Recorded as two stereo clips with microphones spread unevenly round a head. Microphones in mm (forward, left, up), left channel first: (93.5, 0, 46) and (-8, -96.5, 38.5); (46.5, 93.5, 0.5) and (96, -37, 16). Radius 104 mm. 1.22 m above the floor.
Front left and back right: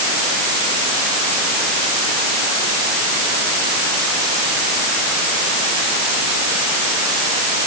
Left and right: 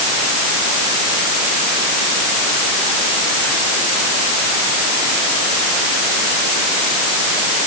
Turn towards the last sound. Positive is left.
No sound to turn to.